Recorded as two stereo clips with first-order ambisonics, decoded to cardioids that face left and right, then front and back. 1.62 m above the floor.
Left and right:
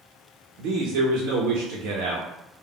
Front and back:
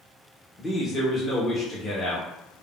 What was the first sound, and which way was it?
A man speaking, 75° right.